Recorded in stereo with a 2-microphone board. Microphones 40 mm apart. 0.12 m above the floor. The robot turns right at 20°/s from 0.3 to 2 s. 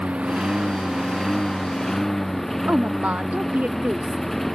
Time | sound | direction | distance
0.0 | a lawn mower | 30° right | ?
2.7 | a woman speaking | 40° right (ahead or behind) | ?